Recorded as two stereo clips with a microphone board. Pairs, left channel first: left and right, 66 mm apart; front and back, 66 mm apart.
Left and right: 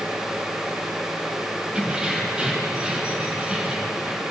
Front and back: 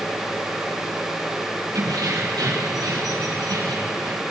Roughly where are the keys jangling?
Behind.